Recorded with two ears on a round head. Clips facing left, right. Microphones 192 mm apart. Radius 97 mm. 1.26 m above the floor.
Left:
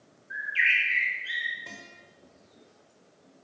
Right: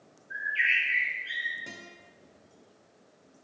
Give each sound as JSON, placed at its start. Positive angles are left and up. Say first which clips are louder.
{"t": 0.3, "sound": "a bird", "louder": "left 1 dB", "side_deg": 65, "distance_m": 3.0}
{"t": 1.7, "sound": "a guitar", "louder": "right 3 dB", "side_deg": -15, "distance_m": 1.7}